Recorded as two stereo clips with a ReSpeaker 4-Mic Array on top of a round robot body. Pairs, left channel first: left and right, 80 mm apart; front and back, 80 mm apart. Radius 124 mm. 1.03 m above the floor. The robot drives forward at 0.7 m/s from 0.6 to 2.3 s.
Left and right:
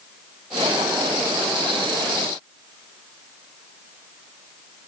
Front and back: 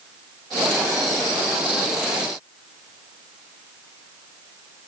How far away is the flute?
I don't hear a flute.